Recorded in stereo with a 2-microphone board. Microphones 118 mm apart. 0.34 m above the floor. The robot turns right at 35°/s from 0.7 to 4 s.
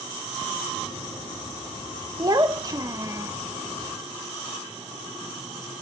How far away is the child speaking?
About 0.6 m.